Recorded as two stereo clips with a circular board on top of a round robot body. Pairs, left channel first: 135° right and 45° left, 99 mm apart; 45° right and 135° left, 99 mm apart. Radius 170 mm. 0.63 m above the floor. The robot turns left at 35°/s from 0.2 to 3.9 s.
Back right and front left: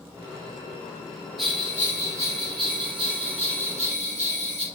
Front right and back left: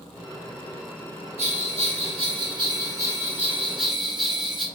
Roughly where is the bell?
Behind left.